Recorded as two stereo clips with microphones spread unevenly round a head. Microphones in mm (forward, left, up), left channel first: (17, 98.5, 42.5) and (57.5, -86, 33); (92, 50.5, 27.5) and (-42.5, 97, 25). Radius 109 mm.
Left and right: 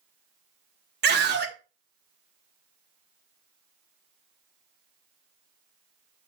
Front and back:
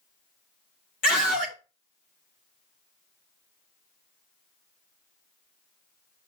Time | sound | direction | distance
1.0 | a scream | 50° right | 2.0 m